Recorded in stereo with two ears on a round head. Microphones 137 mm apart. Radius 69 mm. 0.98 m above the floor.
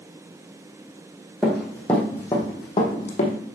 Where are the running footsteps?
5° right (ahead or behind), 3 m; by 3.4 s 50° left (ahead or behind), 3 m.